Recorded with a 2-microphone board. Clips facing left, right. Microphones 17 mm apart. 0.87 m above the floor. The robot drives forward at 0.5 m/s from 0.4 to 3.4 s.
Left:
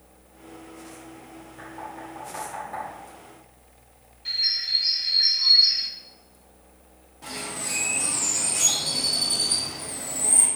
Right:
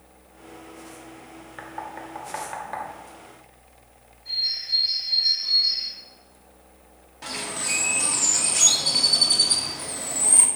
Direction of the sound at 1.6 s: 60° right (ahead or behind).